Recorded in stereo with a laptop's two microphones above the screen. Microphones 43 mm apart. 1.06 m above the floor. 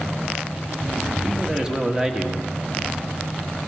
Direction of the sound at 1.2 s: 15° right (ahead or behind).